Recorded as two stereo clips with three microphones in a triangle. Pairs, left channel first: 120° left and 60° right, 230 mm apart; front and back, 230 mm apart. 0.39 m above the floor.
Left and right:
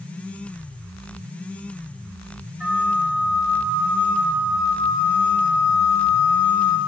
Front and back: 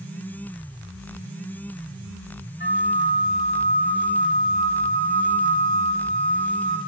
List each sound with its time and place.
2.6 s a flute: 25° left, 2 m